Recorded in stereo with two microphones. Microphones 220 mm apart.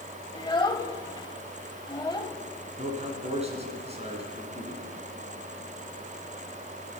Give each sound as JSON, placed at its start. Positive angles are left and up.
{"t": 0.3, "sound": "a child speaking", "side_deg": 20, "distance_m": 0.8}
{"t": 2.8, "sound": "a man speaking", "side_deg": -30, "distance_m": 2.5}